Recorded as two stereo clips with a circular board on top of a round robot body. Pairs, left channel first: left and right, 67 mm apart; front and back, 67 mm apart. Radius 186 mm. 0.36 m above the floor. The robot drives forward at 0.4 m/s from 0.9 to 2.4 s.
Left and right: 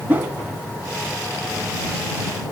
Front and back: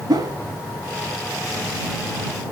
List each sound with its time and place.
0.1 s a whoosh: 155° right, 1.5 m